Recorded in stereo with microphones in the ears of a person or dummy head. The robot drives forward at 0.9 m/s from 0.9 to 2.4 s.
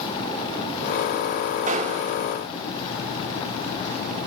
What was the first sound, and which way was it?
A gunshot, 35° right (ahead or behind).